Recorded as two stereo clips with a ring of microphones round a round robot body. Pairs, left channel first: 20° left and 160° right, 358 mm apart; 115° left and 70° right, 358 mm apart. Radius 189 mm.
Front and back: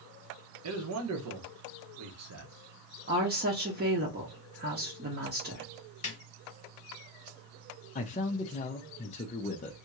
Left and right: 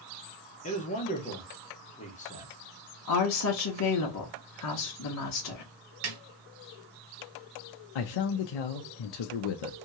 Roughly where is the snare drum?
Ahead right.